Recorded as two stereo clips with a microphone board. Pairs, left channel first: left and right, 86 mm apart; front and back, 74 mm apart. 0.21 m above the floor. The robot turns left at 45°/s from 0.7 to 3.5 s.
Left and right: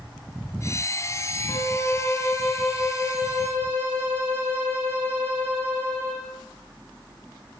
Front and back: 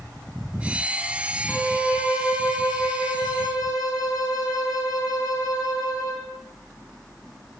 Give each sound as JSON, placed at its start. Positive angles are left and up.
{"t": 1.5, "sound": "a violin", "azimuth_deg": 60, "distance_m": 6.0}